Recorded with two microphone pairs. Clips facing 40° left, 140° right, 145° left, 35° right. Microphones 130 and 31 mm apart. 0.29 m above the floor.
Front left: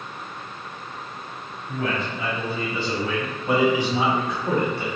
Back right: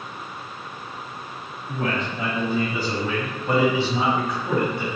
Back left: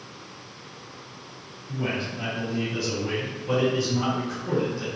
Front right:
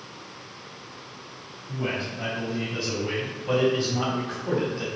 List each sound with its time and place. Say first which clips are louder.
1.7 s a man speaking: back right 1 dB, even; 120° right, 2.0 m; by 4.8 s 5° right, 2.5 m